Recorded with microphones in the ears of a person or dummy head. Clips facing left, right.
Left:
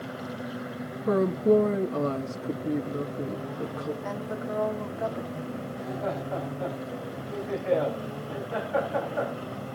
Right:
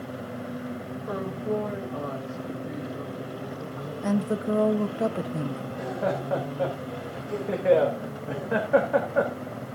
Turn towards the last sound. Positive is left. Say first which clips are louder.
# right 4 dB
turn(degrees=-85)